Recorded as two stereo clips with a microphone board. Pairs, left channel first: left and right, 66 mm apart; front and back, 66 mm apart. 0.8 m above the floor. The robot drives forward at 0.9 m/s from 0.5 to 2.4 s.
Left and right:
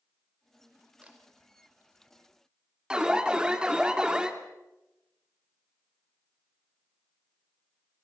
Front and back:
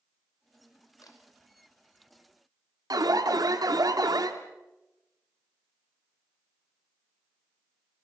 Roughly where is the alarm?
Behind.